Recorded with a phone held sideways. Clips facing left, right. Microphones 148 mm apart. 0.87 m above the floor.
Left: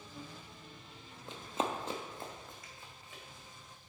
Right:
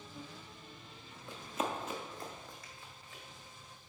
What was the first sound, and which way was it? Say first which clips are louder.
Running footsteps: left 1 dB; 20° left (ahead or behind).